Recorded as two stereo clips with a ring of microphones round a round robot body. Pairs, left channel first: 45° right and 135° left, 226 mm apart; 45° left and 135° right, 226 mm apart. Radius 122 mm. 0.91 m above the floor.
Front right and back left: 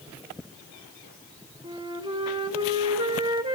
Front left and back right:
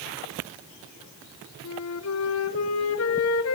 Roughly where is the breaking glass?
No breaking glass in this recording.